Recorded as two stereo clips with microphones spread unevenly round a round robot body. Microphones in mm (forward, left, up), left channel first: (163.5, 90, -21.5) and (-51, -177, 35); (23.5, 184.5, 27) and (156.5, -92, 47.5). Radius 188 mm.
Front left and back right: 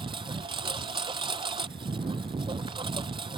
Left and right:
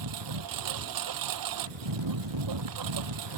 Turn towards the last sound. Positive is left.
turn(degrees=-55)